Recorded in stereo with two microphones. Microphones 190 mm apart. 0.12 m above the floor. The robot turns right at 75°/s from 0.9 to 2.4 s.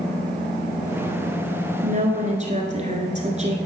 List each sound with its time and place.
1.8 s a woman speaking: 110° right, 1.5 m; by 3.6 s 65° right, 1.5 m